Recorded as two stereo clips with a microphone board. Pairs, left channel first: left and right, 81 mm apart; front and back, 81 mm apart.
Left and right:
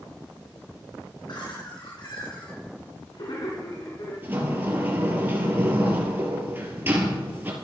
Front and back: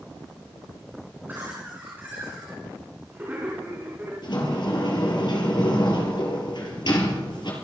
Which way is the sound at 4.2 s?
25° right.